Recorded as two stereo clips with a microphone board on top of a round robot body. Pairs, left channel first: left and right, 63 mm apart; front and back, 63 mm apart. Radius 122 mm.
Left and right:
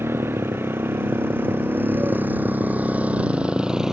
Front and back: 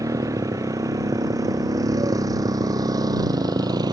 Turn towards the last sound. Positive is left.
turn(degrees=-175)